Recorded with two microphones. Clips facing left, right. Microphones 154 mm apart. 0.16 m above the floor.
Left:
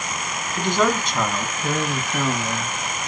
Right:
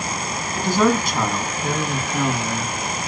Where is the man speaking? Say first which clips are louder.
Right 3 dB; 5° right (ahead or behind), 1.1 m; by 3.1 s 15° right (ahead or behind), 1.8 m.